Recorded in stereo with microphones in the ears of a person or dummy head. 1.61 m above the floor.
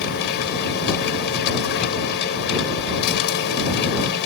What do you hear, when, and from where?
0.0 s a machine running: 60° left (ahead or behind)